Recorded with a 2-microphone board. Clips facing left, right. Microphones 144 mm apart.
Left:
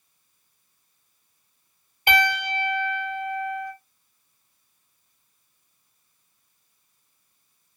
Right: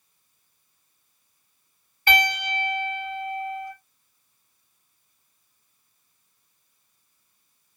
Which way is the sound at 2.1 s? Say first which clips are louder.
Left 1 dB; 20° left (ahead or behind).